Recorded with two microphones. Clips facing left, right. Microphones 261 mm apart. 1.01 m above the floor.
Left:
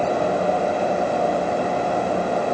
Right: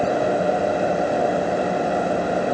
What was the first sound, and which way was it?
Only background noise.